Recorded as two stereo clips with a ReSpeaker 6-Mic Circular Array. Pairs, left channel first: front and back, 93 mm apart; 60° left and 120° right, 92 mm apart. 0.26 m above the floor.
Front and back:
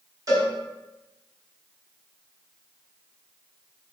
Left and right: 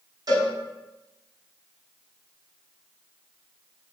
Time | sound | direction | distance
0.3 | a cowbell | 145° right | 1.2 m